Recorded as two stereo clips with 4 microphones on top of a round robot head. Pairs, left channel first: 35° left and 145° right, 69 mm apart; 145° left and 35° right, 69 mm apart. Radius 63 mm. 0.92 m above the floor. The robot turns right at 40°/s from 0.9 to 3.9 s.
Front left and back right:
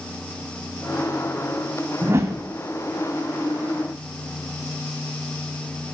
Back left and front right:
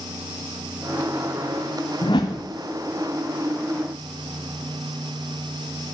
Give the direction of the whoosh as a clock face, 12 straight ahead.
7 o'clock.